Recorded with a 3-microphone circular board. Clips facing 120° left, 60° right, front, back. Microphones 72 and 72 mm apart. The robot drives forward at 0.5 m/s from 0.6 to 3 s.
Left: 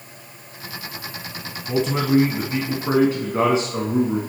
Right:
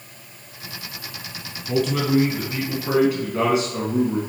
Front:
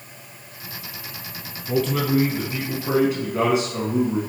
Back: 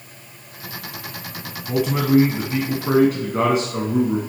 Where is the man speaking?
130° left, 1.0 m; by 4.2 s 165° left, 1.3 m.